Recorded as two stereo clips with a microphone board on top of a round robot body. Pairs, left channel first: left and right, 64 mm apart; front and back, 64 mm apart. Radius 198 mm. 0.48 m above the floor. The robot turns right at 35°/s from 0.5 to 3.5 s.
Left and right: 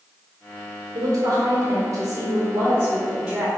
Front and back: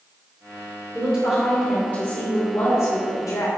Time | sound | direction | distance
0.9 | a woman speaking | 90° right | 2.5 m